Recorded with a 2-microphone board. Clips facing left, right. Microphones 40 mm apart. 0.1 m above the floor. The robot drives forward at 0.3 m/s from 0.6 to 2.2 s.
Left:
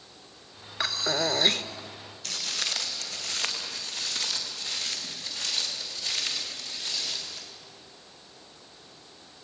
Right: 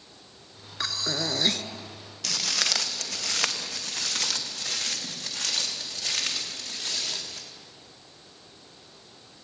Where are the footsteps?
75° right (ahead or behind), 2 m; by 7.4 s 45° right (ahead or behind), 5 m.